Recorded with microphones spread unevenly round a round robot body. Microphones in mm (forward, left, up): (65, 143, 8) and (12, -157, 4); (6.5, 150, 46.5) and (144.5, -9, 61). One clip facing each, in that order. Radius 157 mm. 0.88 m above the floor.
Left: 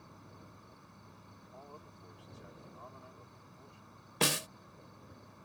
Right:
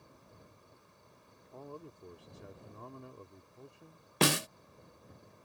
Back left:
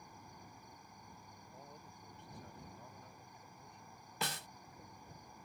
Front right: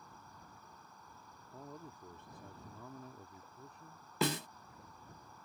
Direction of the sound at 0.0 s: 55° left.